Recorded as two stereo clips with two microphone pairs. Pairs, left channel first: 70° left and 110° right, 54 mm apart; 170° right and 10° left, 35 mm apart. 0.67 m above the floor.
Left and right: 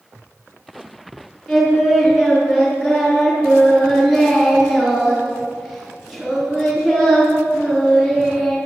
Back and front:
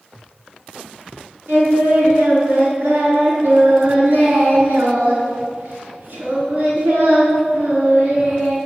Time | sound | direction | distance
1.5 | singing | 20° right | 4.5 m